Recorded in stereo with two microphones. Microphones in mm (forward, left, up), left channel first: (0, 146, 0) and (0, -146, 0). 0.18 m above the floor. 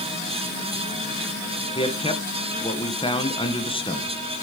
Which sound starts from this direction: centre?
A man speaking, at 1.8 s.